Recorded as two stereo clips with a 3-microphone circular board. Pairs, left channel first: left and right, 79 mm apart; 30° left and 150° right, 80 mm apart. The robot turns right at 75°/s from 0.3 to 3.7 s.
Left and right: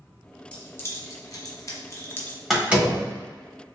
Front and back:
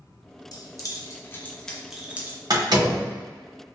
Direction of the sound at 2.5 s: Straight behind.